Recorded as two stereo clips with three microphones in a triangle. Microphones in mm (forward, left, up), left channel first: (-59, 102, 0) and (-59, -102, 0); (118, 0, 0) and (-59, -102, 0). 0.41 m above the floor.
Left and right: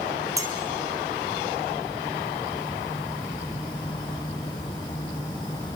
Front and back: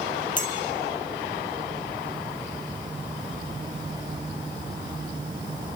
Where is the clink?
15° right, 2.5 m.